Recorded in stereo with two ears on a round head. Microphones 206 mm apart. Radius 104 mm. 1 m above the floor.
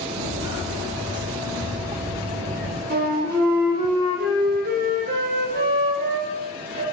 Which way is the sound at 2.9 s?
40° right (ahead or behind).